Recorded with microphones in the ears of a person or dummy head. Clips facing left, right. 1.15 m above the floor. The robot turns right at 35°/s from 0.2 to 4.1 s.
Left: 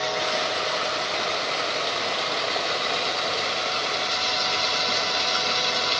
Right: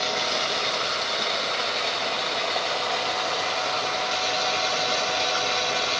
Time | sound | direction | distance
0.0 | running water | 65° right | 0.8 m